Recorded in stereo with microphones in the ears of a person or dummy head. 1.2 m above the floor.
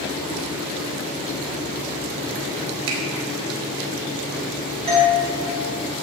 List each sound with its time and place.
2.9 s a finger snap: 70° right (ahead or behind), 2.5 m
4.9 s a doorbell: 30° right (ahead or behind), 2.5 m